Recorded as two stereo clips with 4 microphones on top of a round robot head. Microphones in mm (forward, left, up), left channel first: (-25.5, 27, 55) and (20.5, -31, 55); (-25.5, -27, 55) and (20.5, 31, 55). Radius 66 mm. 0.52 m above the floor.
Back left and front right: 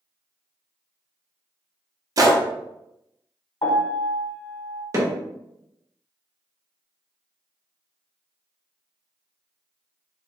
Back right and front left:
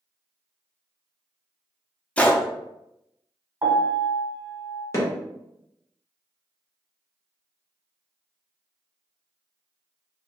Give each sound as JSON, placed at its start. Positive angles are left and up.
{"t": 2.2, "sound": "a gunshot", "azimuth_deg": -60, "distance_m": 0.7}
{"t": 3.6, "sound": "a piano", "azimuth_deg": 105, "distance_m": 1.6}
{"t": 4.9, "sound": "hammering", "azimuth_deg": -85, "distance_m": 1.5}